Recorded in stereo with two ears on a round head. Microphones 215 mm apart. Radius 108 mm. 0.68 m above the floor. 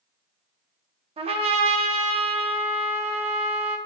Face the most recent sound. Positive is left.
turn(degrees=-25)  # may be behind; listen again after turning